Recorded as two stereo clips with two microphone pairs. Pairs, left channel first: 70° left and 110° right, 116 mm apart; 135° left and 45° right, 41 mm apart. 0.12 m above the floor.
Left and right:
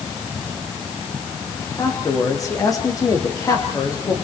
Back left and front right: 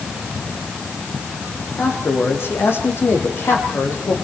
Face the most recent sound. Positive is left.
turn(degrees=130)